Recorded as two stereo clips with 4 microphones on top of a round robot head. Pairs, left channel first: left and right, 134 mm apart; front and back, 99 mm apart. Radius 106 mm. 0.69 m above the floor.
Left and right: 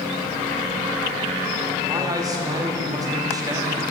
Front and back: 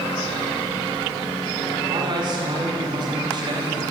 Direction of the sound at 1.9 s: 150° right.